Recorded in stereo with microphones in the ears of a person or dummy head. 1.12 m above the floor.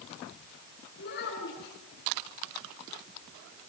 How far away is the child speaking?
About 9.5 m.